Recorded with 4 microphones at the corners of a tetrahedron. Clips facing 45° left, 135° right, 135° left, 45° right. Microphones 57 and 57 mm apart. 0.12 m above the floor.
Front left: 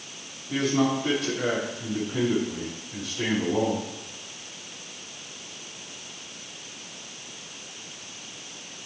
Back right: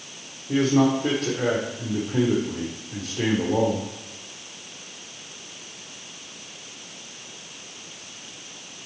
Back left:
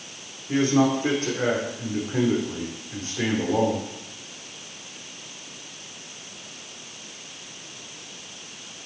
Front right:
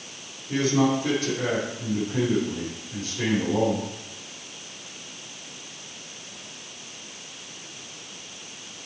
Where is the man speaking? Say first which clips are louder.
Back right 4 dB, back left 2 dB; 170° right, 4.5 m.